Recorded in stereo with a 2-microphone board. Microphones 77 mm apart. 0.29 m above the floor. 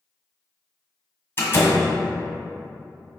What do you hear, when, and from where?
1.4 s a door slam: 35° left (ahead or behind), 1.4 m